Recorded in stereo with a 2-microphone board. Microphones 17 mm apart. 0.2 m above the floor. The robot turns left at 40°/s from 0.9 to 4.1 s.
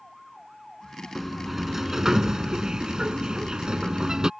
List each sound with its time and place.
1.1 s a sliding door: straight ahead; by 4.3 s 120° right